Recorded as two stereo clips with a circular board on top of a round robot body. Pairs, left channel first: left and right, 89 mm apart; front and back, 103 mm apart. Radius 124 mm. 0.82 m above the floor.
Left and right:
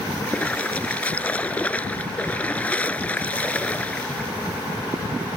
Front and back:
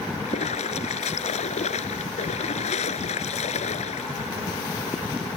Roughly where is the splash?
Ahead.